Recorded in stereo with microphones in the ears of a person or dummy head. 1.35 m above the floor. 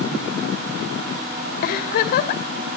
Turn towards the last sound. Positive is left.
turn(degrees=45)  # may be behind; listen again after turning